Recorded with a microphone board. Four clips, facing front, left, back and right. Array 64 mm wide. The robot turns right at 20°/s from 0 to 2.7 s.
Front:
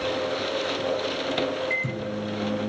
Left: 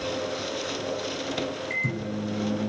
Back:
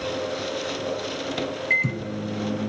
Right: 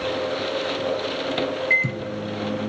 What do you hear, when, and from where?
1.7 s a microwave: 125° right, 1.6 m; by 2.7 s 105° right, 1.6 m